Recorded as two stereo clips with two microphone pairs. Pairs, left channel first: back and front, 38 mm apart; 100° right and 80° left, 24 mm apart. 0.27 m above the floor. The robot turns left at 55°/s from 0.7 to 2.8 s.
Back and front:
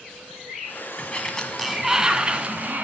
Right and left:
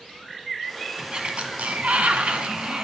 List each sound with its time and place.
1.0 s a sliding door: 130° left, 1.3 m; by 2.9 s 30° left, 1.3 m